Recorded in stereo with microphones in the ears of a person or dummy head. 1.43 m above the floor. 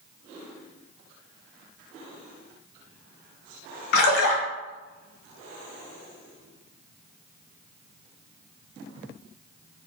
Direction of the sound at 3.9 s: 65° left (ahead or behind).